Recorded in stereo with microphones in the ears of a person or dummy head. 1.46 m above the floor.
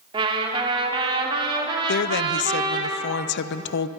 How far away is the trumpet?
About 2.5 m.